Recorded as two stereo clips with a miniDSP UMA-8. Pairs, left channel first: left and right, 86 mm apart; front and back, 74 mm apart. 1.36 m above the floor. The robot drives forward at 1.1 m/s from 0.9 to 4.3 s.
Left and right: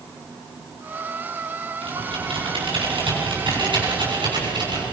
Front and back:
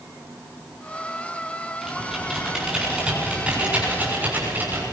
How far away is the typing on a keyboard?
About 7.5 m.